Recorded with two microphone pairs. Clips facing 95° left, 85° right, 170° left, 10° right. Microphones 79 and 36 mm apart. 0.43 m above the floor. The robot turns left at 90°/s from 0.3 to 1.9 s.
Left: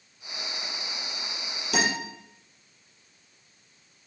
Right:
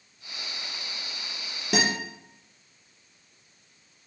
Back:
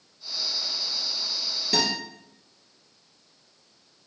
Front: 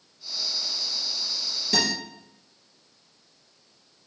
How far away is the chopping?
No chopping in this recording.